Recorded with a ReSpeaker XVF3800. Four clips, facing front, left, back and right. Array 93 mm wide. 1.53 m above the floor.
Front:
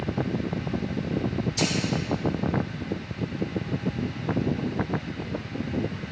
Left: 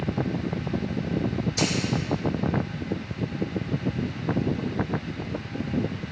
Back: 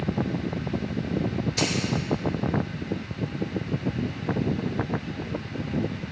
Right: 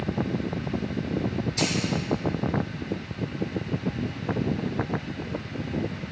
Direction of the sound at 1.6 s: 170° left.